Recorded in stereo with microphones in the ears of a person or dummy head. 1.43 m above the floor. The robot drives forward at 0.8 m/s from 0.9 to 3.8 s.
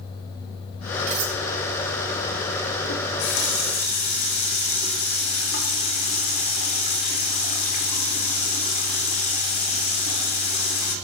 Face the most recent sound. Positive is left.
turn(degrees=50)  # may be behind; listen again after turning